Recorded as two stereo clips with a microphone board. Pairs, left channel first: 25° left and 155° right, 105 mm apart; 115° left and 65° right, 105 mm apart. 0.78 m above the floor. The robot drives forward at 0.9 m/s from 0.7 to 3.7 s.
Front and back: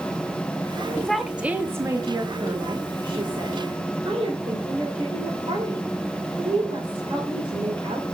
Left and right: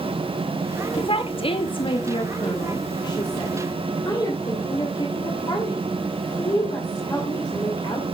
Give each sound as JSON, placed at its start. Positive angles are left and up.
{"t": 1.0, "sound": "a woman speaking", "azimuth_deg": 100, "distance_m": 0.9}